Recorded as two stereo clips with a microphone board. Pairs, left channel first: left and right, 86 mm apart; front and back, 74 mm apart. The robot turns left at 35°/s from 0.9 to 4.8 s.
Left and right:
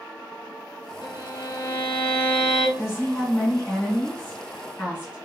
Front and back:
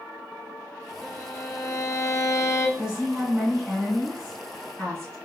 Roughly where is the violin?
Ahead left.